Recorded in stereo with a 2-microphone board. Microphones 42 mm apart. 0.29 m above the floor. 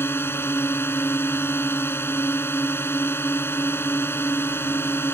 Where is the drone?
65° left (ahead or behind).